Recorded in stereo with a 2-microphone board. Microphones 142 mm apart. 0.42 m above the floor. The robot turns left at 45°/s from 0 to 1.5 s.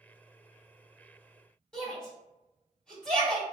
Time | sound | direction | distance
1.7 | a shout | 5° left (ahead or behind) | 1.3 m